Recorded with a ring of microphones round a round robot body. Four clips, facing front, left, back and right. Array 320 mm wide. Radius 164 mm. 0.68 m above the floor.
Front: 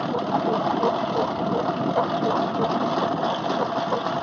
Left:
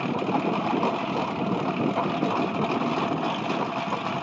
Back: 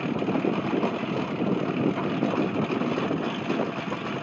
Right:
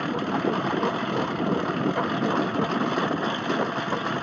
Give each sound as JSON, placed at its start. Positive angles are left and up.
{"t": 0.0, "sound": "a lawn mower", "azimuth_deg": -20}